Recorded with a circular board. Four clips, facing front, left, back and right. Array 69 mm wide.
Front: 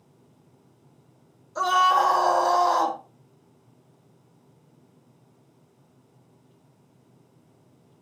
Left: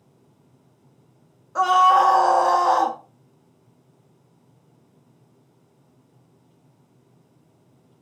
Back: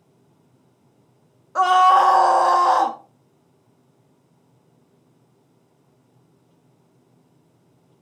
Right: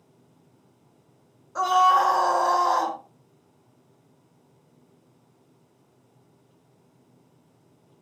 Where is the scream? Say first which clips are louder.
Left 3 dB, back 6 dB; 160° left, 1.3 m.